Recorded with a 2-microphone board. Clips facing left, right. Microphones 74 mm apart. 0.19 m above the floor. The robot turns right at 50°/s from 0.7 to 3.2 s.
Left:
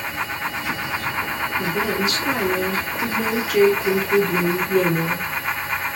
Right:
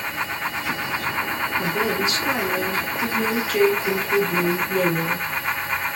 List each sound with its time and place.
1.6 s a woman speaking: 60° right, 1.8 m; by 5.3 s 20° left, 1.8 m